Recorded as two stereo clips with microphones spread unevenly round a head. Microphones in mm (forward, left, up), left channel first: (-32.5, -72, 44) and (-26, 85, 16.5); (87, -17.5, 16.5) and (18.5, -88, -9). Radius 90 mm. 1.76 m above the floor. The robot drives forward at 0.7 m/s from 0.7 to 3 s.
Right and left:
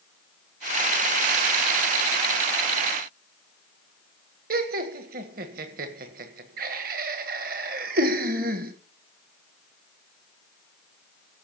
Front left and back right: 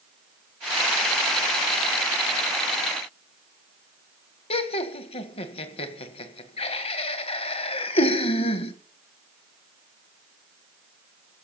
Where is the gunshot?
No gunshot in this recording.